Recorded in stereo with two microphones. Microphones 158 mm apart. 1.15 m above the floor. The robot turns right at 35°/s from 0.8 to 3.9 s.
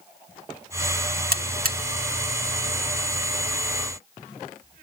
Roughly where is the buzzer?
Right.